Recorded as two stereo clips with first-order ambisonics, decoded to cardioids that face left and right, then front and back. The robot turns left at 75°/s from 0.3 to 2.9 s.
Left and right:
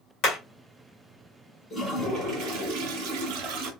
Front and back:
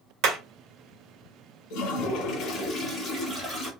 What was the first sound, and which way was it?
Hammering, 140° left.